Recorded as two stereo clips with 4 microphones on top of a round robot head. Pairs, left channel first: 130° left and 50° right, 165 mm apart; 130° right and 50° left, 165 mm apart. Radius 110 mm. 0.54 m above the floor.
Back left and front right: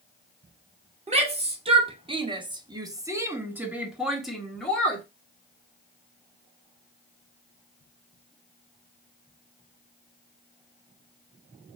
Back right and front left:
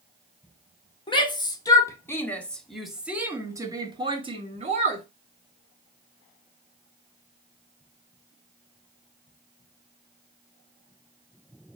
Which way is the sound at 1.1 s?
85° right.